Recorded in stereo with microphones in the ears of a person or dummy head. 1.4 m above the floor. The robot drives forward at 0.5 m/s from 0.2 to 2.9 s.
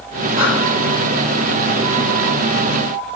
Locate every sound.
0.4 s breathing: 25° right (ahead or behind), 1.8 m